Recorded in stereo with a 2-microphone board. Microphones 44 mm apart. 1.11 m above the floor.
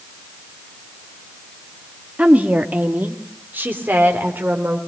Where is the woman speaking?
35° right (ahead or behind), 1.8 m; by 4.8 s 55° right (ahead or behind), 4 m.